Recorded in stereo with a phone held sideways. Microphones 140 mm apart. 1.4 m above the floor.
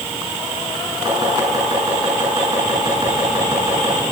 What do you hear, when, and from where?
1.1 s chopping: 30° right (ahead or behind), 8 m